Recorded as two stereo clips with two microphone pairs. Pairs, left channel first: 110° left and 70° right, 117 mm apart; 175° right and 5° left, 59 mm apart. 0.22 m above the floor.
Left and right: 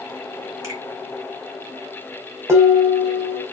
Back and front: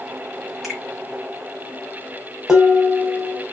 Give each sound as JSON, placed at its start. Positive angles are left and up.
{"t": 0.6, "sound": "a finger snap", "azimuth_deg": -85, "distance_m": 1.3}
{"t": 2.5, "sound": "dishes clattering", "azimuth_deg": -70, "distance_m": 0.7}